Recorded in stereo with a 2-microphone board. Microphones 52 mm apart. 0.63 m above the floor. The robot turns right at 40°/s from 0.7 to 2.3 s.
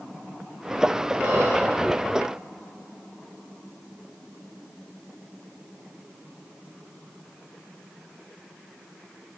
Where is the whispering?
35° right (ahead or behind), 2.5 m; by 1.6 s 20° right (ahead or behind), 2.5 m.